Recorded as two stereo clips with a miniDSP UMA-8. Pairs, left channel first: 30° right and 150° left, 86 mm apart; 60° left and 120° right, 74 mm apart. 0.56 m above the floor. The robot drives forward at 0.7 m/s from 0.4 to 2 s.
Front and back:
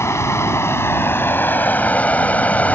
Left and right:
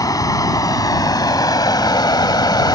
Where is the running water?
30° left; by 2.7 s 40° left.